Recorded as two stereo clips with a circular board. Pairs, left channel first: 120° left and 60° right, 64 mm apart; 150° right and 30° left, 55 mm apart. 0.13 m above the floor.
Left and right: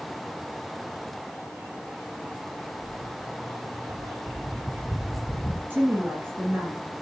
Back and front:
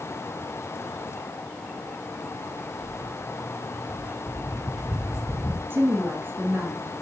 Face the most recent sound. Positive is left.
turn(degrees=-10)